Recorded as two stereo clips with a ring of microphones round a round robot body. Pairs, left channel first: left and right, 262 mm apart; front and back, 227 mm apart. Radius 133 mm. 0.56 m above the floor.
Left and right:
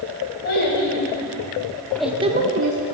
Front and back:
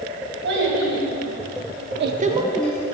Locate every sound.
0.4 s a child speaking: 145° left, 3 m; by 2.9 s 70° right, 1.1 m